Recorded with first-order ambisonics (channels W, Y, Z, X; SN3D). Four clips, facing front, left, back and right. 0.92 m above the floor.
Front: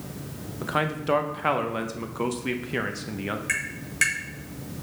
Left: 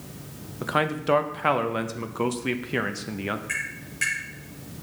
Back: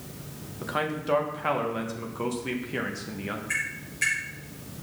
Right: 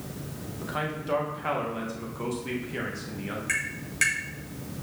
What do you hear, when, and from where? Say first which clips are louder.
0.6 s a man speaking: left 8 dB, front 3 dB; 70° left, 0.5 m
3.5 s tapping: right 1 dB, front 1 dB; 30° right, 3.5 m